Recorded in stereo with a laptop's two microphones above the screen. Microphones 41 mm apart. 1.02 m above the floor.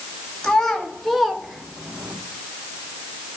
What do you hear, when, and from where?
0.4 s a child speaking: 10° left (ahead or behind), 1.2 m; by 2.2 s 40° right (ahead or behind), 0.5 m